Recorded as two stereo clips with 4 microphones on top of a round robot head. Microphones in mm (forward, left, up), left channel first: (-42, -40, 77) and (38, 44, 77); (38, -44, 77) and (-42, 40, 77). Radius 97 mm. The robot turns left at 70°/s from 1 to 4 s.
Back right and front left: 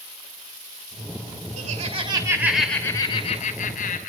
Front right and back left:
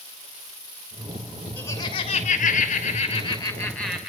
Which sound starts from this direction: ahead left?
Laughter, at 1.6 s.